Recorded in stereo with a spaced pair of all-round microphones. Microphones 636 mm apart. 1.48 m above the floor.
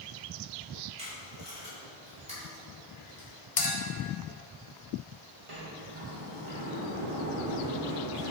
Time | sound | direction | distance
1.0 | tape being pulled | 10° right (ahead or behind) | 2.5 m
3.6 | a clink | 60° left (ahead or behind) | 0.9 m
5.5 | a sliding door | 50° right (ahead or behind) | 1.2 m